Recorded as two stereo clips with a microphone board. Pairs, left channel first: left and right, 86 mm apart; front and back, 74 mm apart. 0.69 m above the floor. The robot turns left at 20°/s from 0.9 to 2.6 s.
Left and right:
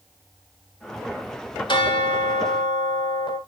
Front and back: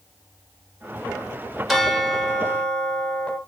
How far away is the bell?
About 2 m.